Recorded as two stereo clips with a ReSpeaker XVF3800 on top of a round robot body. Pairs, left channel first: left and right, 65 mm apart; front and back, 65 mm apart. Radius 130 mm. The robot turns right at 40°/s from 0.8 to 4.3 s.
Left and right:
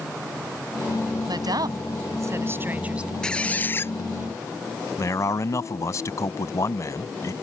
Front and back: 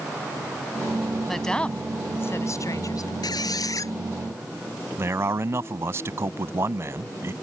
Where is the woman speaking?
90° right; by 3.1 s 15° right.